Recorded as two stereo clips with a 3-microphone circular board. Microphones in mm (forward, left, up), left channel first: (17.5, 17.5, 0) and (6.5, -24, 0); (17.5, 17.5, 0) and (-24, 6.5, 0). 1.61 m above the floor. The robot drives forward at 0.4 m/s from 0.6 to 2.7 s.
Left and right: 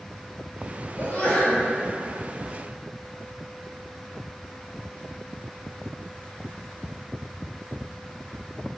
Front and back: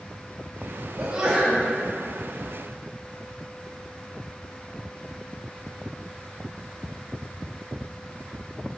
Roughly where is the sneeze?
Behind left.